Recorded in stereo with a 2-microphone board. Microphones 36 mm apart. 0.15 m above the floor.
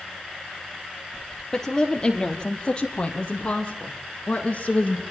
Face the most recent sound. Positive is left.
turn(degrees=40)  # may be behind; listen again after turning